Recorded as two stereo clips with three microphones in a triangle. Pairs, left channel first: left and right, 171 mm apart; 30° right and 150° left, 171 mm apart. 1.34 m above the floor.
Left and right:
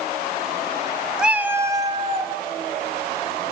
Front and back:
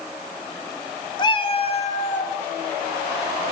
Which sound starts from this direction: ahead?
A cat meowing, at 1.2 s.